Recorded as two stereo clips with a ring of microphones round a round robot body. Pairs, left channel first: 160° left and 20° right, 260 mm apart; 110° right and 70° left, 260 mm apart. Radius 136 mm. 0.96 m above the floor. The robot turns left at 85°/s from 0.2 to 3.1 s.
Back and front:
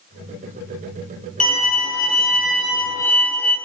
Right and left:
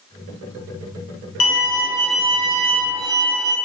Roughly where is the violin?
Behind right.